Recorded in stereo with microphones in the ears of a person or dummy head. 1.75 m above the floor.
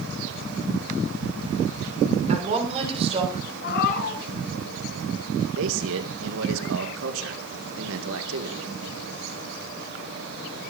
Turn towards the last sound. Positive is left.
turn(degrees=-80)